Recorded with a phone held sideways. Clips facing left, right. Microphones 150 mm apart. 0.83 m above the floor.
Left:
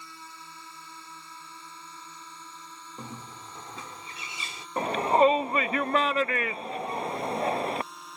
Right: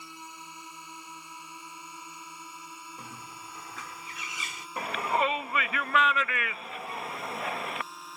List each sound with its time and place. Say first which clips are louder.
0.0 s a drone: right 1 dB; 15° right (ahead or behind); by 8.2 s centre (ahead or behind)
3.0 s a bird: left 3 dB; 30° left (ahead or behind)
4.8 s a shout: left 7 dB; 35° left (ahead or behind)